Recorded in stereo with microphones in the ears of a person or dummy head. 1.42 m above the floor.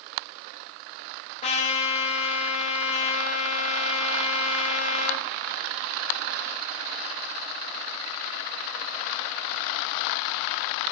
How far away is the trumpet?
About 2 m.